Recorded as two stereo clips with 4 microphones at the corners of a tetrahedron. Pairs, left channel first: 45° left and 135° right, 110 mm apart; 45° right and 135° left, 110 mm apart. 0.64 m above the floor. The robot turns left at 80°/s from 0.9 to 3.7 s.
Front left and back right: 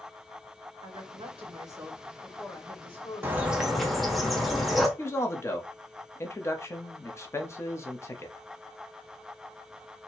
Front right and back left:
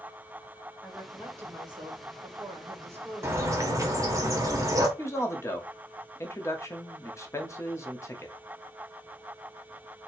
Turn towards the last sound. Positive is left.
turn(degrees=-5)